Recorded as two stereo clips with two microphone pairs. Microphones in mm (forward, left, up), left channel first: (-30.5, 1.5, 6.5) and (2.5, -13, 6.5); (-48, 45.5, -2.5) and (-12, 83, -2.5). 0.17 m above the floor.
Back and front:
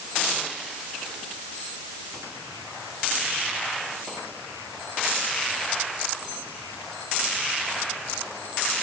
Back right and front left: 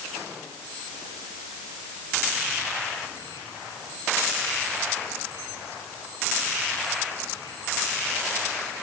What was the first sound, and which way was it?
Only background noise.